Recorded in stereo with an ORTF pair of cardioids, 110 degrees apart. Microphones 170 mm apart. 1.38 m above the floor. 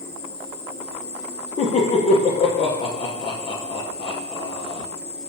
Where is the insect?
35° left, 1.3 m.